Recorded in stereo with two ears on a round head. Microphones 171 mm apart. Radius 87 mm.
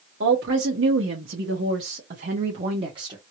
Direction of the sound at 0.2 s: 60° right (ahead or behind).